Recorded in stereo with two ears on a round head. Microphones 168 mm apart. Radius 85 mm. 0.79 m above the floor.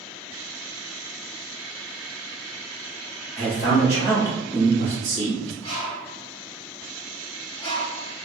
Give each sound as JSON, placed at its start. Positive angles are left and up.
{"t": 3.4, "sound": "a man speaking", "side_deg": -5, "distance_m": 1.5}
{"t": 5.6, "sound": "a bird", "side_deg": 30, "distance_m": 1.2}